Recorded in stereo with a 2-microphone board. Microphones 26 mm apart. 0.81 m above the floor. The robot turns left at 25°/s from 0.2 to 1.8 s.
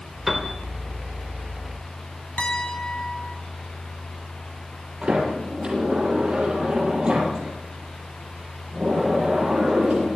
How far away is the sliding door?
About 9.5 m.